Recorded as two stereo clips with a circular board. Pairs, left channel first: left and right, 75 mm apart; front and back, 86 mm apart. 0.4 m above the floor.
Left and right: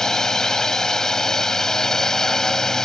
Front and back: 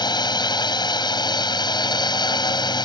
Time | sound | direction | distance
0.0 | a drone | 10° left | ?